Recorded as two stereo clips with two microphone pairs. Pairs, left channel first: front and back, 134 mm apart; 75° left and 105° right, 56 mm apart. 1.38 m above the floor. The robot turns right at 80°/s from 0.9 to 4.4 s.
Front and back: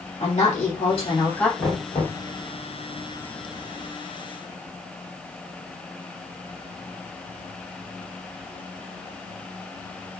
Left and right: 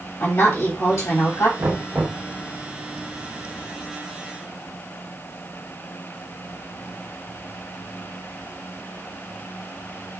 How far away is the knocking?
About 2.0 m.